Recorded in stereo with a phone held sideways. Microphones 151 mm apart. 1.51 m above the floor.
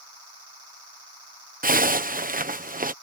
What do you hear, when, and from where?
1.6 s a zipper: 70° right (ahead or behind)